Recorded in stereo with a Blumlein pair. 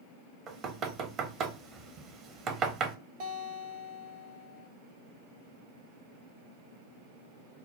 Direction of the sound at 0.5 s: 30° right.